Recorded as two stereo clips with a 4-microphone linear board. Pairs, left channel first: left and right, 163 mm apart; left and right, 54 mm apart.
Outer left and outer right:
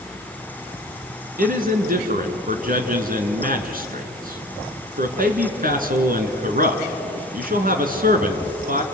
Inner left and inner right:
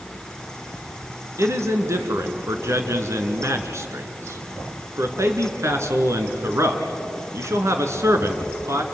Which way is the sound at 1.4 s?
60° right (ahead or behind).